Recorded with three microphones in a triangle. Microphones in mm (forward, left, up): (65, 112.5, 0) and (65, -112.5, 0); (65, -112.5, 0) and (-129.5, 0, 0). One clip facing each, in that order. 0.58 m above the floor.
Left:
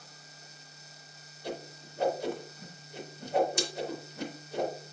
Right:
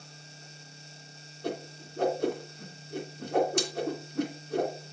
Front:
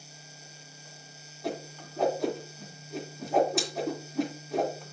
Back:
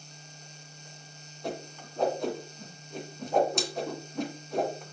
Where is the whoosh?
120° right, 2.5 m.